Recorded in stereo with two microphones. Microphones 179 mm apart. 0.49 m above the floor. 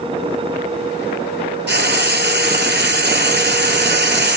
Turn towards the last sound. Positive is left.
turn(degrees=-75)  # may be behind; listen again after turning